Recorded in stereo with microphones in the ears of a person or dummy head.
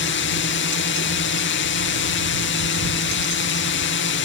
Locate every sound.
0.0 s a drone: 55° left (ahead or behind)